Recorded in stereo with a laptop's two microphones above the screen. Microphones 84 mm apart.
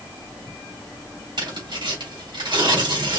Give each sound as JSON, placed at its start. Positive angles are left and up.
{"t": 1.4, "sound": "tearing paper", "side_deg": -65, "distance_m": 3.5}